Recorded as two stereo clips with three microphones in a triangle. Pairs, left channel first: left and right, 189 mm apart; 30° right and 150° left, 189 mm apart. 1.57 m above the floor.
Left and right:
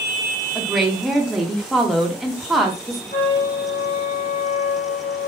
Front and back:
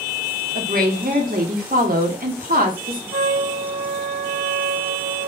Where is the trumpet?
130° left, 2 m.